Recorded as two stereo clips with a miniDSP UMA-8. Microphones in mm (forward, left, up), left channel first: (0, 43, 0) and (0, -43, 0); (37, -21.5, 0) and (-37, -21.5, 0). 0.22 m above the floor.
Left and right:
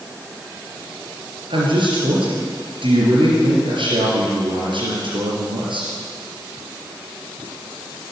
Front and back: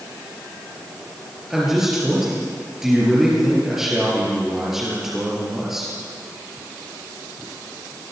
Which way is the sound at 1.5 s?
95° right.